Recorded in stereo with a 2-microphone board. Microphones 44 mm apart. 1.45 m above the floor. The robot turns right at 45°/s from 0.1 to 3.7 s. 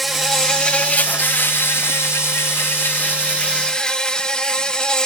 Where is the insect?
Straight ahead, 1.0 m; by 5.1 s 165° left, 1.0 m.